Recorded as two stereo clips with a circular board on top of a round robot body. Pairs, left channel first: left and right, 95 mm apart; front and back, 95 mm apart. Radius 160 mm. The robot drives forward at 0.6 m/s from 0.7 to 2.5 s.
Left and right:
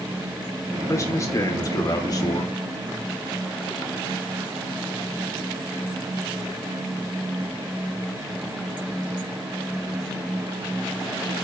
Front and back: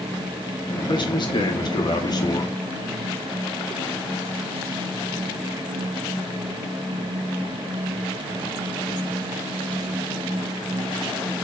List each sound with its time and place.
0.9 s a man speaking: 35° left, 3 m; by 2.6 s 45° left, 2.5 m